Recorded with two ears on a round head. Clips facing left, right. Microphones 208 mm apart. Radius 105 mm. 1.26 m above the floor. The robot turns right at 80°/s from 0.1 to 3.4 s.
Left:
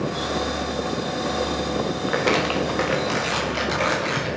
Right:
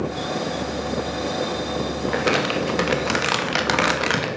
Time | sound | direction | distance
2.1 | crumpling | 170° left | 2.5 m